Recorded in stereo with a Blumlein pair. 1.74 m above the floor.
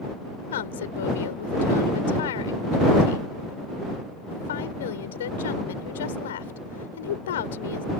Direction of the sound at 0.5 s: 60° left.